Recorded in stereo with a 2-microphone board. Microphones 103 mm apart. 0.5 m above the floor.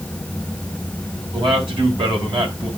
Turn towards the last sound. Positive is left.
turn(degrees=-50)  # may be behind; listen again after turning